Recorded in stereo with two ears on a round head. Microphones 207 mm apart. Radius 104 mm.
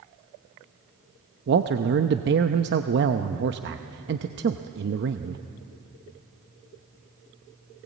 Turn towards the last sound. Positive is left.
turn(degrees=-50)  # may be behind; listen again after turning